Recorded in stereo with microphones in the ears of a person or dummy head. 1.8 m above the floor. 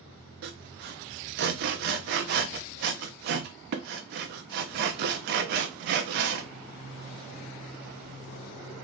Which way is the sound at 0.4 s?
50° right (ahead or behind).